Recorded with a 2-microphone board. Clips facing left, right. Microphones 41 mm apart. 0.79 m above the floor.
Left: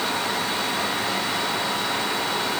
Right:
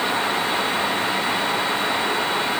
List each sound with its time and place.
Only background noise.